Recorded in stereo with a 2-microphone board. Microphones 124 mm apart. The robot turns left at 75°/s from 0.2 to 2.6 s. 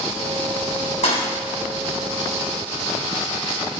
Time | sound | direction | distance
1.0 | a thud | 60° left (ahead or behind) | 6 m